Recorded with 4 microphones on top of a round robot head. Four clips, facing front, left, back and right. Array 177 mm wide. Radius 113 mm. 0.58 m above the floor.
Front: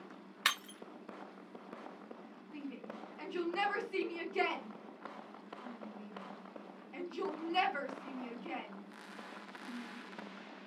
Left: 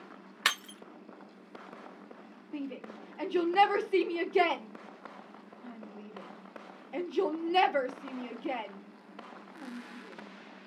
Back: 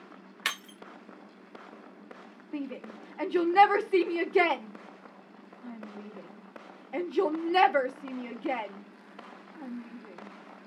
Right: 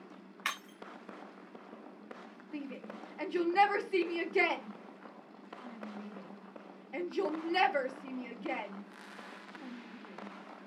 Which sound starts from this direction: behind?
A shout, at 2.5 s.